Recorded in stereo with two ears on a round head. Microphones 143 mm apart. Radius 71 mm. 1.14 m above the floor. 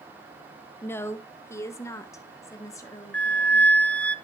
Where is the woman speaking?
15° left (ahead or behind), 0.8 m; by 3.7 s 20° left (ahead or behind), 2 m.